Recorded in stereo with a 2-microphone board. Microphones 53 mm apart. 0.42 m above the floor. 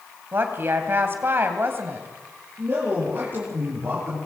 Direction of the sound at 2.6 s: 40° right (ahead or behind).